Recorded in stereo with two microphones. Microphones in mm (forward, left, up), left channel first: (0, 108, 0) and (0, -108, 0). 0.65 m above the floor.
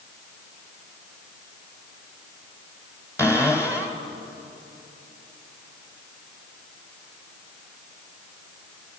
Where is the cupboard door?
15° left (ahead or behind), 2.5 m.